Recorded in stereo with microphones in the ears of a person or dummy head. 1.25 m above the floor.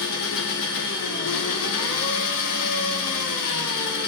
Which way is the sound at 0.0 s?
70° left (ahead or behind).